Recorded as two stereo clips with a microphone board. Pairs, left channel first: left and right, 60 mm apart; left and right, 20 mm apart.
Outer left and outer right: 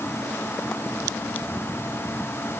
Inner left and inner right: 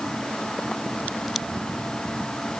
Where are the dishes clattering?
I don't hear dishes clattering.